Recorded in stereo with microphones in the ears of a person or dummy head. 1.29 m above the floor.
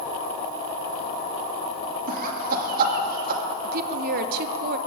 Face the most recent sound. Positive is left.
turn(degrees=-60)  # may be behind; listen again after turning